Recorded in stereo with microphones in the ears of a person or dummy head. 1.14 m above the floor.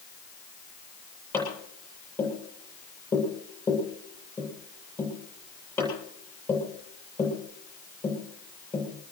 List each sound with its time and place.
1.3 s tapping: 10° left (ahead or behind), 8 m